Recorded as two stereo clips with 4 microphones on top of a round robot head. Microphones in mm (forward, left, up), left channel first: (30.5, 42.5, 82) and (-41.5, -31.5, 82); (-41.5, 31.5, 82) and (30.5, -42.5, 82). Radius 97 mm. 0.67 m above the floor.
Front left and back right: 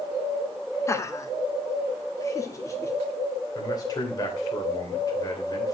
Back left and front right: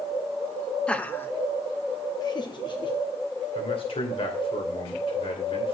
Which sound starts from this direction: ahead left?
Laughter, at 0.9 s.